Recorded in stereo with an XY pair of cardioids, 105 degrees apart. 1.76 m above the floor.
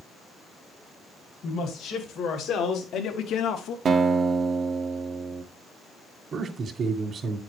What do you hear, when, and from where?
1.4 s a man speaking: 70° left, 2 m; by 3.8 s 80° left, 0.8 m
3.9 s a guitar: 50° right, 1.0 m
6.3 s a man speaking: 50° right, 1.8 m